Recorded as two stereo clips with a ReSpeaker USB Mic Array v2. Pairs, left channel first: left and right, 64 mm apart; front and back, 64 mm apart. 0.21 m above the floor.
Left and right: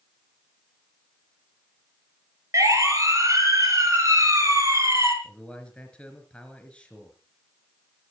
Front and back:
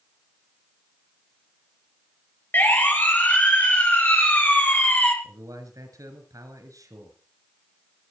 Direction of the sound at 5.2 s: 165° left.